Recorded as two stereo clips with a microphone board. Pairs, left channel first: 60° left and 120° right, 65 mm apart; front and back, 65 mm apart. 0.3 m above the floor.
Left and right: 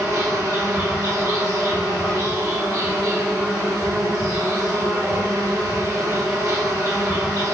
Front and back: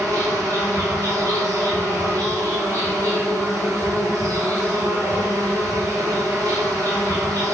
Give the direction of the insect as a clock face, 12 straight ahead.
5 o'clock.